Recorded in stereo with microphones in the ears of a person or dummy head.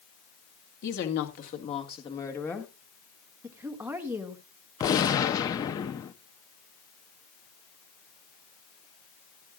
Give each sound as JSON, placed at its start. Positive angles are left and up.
{"t": 0.8, "sound": "a woman speaking", "side_deg": 60, "distance_m": 2.0}
{"t": 3.4, "sound": "a woman speaking", "side_deg": -10, "distance_m": 1.9}
{"t": 4.8, "sound": "a gunshot", "side_deg": 20, "distance_m": 0.5}